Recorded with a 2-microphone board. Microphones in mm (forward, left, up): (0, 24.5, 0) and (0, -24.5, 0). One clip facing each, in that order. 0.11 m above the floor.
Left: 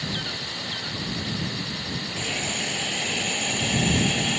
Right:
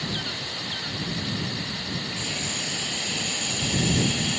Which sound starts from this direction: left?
A hiss, at 2.2 s.